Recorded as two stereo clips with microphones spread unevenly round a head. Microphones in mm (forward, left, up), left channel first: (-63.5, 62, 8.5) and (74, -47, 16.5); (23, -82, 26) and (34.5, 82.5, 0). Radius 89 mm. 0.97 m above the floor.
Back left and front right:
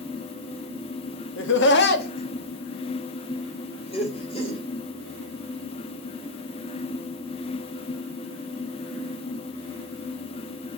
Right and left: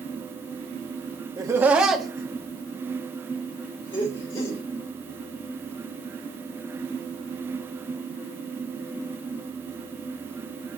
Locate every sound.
1.4 s laughter: 155° left, 1.2 m; by 4.6 s 155° right, 4 m